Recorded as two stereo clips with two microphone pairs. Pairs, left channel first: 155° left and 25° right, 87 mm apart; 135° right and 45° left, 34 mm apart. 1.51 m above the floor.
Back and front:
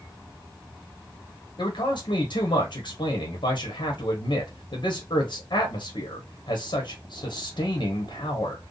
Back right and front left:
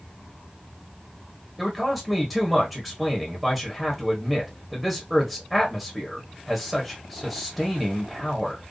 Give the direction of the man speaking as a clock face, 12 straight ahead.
7 o'clock.